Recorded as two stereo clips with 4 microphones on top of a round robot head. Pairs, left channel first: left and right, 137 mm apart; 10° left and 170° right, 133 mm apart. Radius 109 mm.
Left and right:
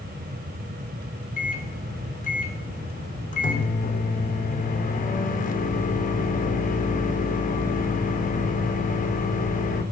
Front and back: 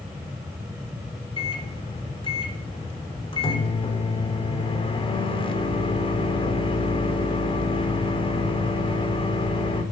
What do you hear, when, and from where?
1.4 s a microwave: 60° left, 3.5 m